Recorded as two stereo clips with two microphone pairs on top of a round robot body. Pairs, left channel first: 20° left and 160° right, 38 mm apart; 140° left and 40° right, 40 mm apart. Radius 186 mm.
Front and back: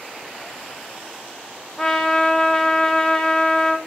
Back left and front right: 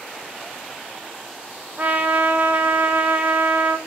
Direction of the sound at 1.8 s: 45° right.